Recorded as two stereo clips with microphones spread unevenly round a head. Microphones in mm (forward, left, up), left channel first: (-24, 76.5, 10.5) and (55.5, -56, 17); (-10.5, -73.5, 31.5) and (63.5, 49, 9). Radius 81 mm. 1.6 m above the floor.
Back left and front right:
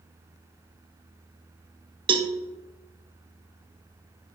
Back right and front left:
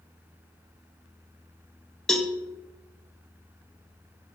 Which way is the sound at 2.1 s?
55° right.